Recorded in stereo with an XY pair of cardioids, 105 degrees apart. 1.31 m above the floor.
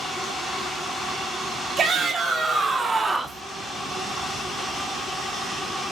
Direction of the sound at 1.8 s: 50° right.